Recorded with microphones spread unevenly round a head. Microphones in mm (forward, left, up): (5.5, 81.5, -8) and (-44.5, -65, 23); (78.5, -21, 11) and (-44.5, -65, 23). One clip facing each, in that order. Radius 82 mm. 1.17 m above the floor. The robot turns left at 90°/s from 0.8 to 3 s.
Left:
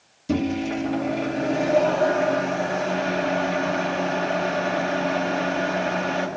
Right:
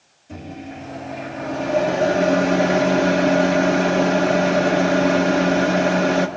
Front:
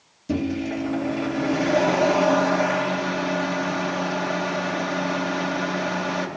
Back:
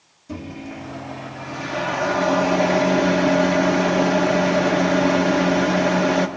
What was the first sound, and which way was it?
A microwave, 65° left.